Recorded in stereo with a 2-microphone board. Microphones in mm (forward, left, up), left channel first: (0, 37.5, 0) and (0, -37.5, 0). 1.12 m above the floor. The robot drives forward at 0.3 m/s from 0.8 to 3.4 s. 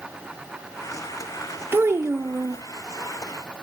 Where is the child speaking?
30° right (ahead or behind), 0.6 m; by 2.6 s 40° right (ahead or behind), 0.5 m.